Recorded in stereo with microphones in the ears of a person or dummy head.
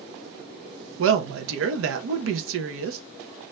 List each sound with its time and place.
1.0 s a woman speaking: 65° right (ahead or behind), 0.7 m